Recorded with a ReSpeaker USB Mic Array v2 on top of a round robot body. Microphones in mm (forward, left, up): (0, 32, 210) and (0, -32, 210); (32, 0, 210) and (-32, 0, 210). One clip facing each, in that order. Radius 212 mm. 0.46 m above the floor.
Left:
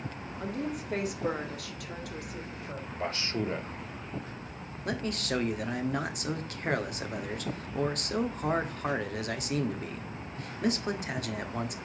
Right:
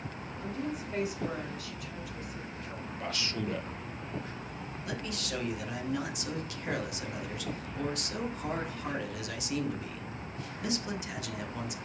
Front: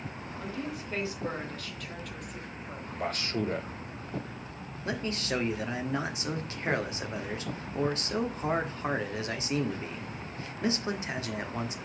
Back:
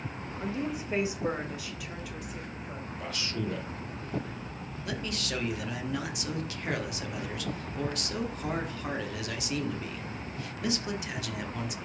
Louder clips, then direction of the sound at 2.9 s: Left 3 dB, front 5 dB; 35° left.